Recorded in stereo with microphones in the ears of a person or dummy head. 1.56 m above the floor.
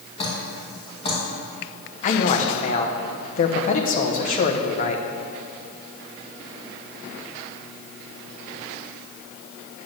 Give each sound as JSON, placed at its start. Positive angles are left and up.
{"t": 0.2, "sound": "dripping", "side_deg": 30, "distance_m": 2.5}
{"t": 2.0, "sound": "a man speaking", "side_deg": 45, "distance_m": 1.1}